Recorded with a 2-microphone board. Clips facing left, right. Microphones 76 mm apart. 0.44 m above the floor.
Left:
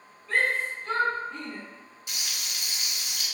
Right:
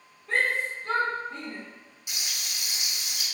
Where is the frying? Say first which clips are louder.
Even; 20° right (ahead or behind), 0.9 m.